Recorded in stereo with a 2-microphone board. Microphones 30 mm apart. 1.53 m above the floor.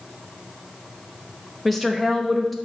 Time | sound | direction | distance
1.6 | a woman speaking | 5° left (ahead or behind) | 1.1 m